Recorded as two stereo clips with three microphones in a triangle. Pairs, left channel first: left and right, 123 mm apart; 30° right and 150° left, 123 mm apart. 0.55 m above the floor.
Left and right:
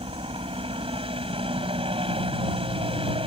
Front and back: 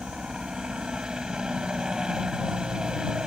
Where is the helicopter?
125° right.